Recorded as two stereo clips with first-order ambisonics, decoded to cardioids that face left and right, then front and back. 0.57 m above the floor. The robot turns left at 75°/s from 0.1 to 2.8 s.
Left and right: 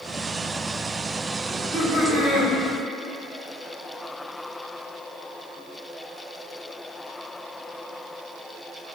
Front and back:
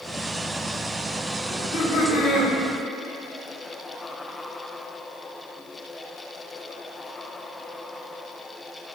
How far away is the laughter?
About 1.6 m.